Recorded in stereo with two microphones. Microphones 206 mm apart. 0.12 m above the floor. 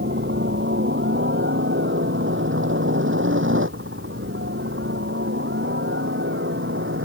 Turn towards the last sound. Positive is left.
turn(degrees=-70)  # may be behind; listen again after turning